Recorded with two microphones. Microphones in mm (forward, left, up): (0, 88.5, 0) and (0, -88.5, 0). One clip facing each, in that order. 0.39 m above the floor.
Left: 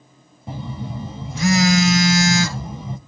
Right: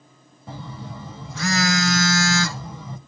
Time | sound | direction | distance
0.5 | a phone buzzing | 20° left (ahead or behind) | 0.7 m